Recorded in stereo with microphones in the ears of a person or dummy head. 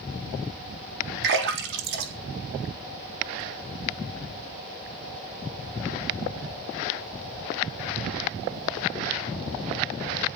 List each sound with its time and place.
1.2 s a splash: 65° right (ahead or behind), 3.5 m